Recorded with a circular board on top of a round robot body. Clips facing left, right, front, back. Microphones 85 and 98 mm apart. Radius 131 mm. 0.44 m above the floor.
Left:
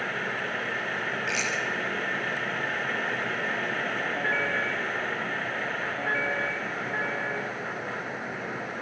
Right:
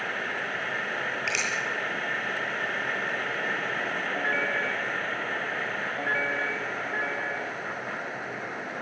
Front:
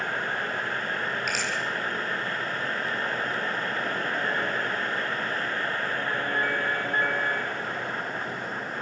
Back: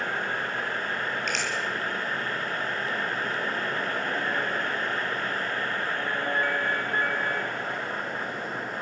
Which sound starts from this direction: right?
A finger snap, at 1.3 s.